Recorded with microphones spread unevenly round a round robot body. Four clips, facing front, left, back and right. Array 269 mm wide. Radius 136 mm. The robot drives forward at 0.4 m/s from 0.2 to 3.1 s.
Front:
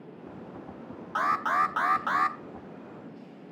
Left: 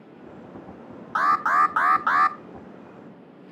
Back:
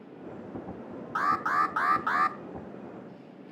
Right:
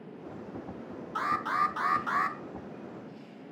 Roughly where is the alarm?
Left.